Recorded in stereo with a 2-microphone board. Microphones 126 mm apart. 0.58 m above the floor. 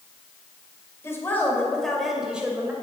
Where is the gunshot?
I don't hear a gunshot.